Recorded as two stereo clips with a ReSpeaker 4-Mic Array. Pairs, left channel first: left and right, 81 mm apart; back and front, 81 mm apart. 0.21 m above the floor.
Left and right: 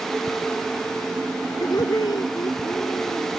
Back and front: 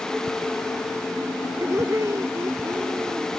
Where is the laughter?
55° left.